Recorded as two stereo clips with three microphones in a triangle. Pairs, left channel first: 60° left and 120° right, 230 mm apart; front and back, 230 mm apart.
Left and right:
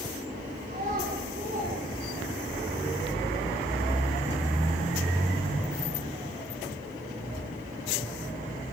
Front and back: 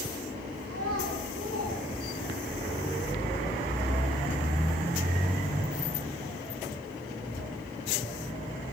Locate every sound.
0.7 s a child speaking: 175° right, 9 m